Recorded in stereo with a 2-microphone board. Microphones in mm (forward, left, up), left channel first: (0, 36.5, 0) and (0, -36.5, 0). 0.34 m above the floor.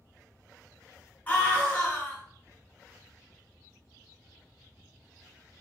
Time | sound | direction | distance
1.3 | a scream | 20° left (ahead or behind) | 1.4 m